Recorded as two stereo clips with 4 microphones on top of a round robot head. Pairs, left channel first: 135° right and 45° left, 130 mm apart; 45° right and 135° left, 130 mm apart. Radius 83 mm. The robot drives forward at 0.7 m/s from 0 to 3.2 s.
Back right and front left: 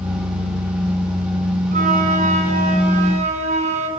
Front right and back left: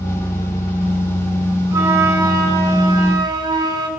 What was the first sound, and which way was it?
A flute, 65° left.